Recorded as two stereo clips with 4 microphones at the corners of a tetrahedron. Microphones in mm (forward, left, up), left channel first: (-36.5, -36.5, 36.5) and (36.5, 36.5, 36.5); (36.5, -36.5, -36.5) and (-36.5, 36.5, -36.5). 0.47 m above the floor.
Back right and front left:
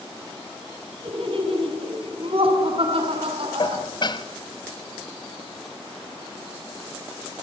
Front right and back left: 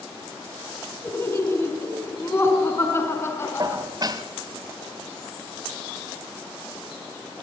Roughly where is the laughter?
Ahead.